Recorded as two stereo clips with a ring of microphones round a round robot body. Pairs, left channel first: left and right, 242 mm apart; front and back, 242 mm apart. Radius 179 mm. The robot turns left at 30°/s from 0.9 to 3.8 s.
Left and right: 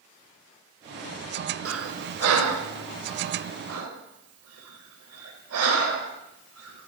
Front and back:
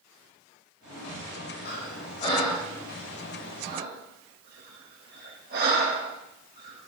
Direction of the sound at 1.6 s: 55° right.